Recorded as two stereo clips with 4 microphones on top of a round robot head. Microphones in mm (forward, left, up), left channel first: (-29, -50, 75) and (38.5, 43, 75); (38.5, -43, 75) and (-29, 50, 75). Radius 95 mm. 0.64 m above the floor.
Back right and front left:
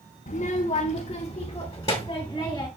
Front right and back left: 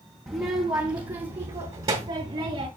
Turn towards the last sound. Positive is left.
turn(degrees=165)